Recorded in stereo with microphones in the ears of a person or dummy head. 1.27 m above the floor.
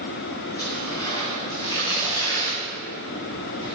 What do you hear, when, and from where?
0.6 s tearing paper: 25° left (ahead or behind), 4 m